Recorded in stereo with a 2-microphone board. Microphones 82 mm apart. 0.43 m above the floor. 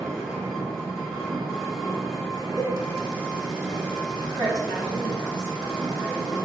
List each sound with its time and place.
0.0 s an engine running: centre (ahead or behind), 0.9 m
2.6 s a cowbell: 40° right (ahead or behind), 0.7 m
4.2 s a woman speaking: 55° left (ahead or behind), 1.4 m